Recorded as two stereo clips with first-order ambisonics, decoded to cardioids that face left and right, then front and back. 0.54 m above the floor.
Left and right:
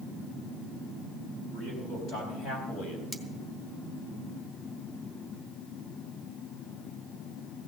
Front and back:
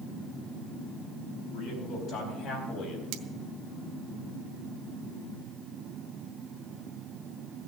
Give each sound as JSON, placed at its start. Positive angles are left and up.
{"t": 1.5, "sound": "a man speaking", "azimuth_deg": 40, "distance_m": 4.5}
{"t": 3.1, "sound": "cutlery clinking", "azimuth_deg": 175, "distance_m": 0.9}